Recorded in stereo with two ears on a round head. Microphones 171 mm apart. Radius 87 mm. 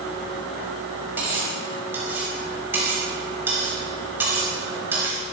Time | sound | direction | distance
1.2 | cutlery clinking | 10° right (ahead or behind) | 5 m